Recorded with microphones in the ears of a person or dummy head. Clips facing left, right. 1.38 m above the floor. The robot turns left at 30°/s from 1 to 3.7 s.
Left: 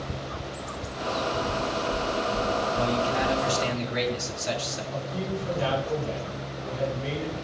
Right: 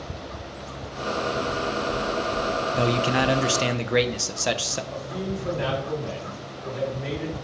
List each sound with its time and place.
1.5 s knocking: 35° right (ahead or behind), 6 m; by 3.4 s 85° right, 6 m
2.8 s a man speaking: 75° right (ahead or behind), 1.0 m
4.9 s a man speaking: 85° right, 6 m